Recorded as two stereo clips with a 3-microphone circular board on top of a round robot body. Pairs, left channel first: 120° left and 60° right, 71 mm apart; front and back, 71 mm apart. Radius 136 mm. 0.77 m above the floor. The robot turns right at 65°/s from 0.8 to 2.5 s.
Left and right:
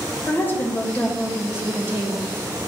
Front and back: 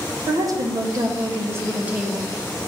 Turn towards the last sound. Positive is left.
turn(degrees=-75)